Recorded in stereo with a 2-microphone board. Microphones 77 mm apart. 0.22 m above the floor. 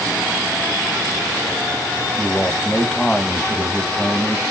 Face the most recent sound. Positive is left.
turn(degrees=5)  # may be behind; listen again after turning